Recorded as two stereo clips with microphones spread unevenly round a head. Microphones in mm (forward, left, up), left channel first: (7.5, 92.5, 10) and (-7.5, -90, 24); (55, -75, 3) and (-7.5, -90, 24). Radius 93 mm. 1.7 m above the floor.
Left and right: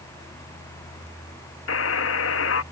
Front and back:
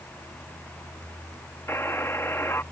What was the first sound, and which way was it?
A buzzer, 100° left.